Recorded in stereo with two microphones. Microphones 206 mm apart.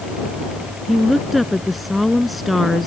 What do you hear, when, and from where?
0.9 s a woman speaking: centre (ahead or behind)